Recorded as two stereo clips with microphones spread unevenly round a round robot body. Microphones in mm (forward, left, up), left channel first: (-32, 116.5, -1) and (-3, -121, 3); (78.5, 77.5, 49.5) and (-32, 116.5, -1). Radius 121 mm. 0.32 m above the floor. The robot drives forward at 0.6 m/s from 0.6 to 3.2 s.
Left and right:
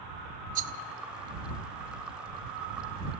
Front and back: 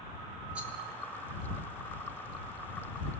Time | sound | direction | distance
0.6 | a rattle | 135° right | 0.6 m